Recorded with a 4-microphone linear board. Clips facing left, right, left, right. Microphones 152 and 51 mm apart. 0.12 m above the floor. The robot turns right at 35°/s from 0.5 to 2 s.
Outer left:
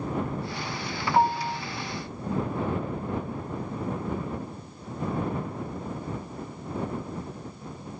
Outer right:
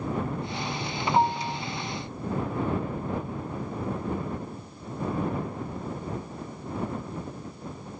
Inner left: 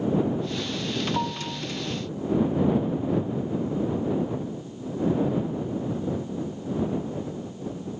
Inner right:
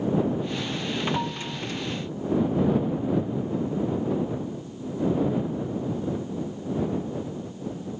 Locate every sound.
1.1 s a piano: 10° left (ahead or behind); by 1.6 s 25° left (ahead or behind)